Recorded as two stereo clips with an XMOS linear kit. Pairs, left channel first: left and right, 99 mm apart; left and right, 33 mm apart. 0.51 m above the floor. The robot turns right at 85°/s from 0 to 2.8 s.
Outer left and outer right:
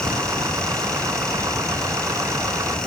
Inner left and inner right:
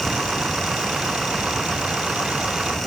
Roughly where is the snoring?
No snoring in this recording.